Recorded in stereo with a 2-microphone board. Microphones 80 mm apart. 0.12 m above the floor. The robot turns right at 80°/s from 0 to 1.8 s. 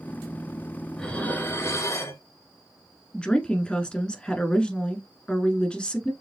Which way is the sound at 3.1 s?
15° left (ahead or behind).